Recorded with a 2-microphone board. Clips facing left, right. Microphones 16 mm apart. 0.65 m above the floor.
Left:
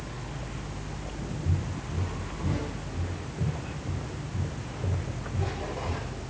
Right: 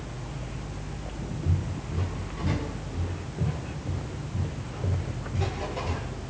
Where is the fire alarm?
No fire alarm in this recording.